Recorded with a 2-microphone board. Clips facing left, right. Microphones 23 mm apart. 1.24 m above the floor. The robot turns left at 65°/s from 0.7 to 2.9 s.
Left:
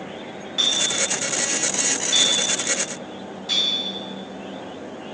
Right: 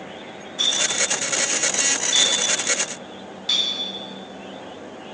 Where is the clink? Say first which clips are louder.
Even; 70° left (ahead or behind), 1.3 m; by 3.7 s 35° right (ahead or behind), 1.3 m.